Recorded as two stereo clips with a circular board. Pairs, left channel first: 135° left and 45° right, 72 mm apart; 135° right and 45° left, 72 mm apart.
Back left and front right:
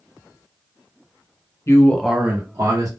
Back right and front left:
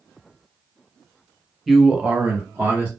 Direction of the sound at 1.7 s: 135° left.